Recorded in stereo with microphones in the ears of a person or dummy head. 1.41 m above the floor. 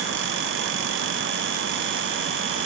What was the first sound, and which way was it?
Only background noise.